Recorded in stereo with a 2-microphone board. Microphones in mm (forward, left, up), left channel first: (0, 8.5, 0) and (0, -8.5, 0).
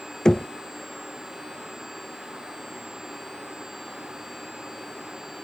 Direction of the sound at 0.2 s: 40° left (ahead or behind).